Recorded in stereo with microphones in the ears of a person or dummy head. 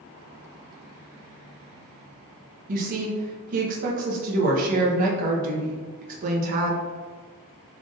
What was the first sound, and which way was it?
A woman speaking, 45° right (ahead or behind).